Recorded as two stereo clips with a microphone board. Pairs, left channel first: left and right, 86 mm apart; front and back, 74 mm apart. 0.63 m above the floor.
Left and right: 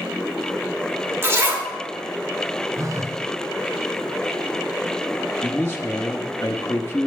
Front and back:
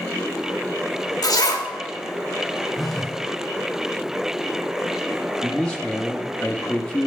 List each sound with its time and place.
1.2 s a zipper: 30° right, 1.4 m
2.8 s a phone buzzing: 90° right, 0.8 m
5.4 s a man speaking: 65° left, 0.7 m